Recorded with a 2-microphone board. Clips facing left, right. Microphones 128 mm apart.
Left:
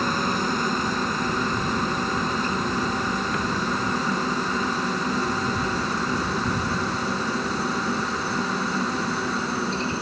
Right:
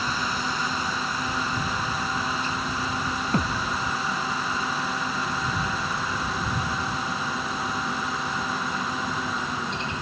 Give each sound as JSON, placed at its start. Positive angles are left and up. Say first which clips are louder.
{"t": 0.0, "sound": "a helicopter", "louder": "left 4 dB", "side_deg": 45}
{"t": 3.3, "sound": "a thud", "louder": "left 1 dB", "side_deg": -35}